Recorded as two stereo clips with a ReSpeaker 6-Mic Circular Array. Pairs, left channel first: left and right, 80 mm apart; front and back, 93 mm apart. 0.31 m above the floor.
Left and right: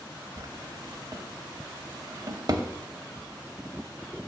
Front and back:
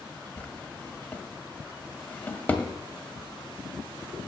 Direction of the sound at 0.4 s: 70° right.